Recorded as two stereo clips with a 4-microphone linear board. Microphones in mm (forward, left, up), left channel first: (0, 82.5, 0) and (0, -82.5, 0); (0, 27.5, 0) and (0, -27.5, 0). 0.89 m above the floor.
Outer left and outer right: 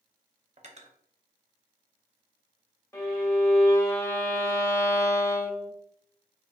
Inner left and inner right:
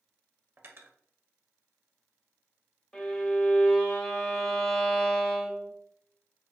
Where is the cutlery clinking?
45° right (ahead or behind), 0.6 m.